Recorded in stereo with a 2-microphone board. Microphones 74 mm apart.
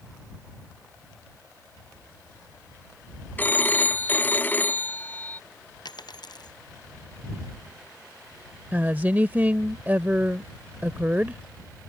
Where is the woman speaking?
25° right (ahead or behind).